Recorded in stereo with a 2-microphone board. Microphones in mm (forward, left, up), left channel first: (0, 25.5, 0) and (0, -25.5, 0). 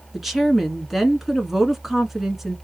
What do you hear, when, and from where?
0.1 s a woman speaking: centre (ahead or behind), 1.1 m